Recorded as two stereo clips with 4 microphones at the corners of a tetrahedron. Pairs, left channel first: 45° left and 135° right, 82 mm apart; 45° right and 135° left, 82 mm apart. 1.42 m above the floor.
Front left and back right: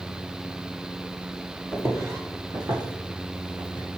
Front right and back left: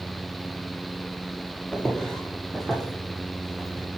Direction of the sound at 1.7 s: 120° right.